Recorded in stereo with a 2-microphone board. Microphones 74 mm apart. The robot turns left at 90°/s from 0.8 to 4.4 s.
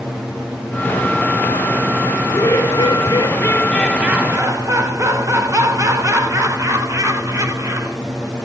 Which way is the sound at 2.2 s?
155° left.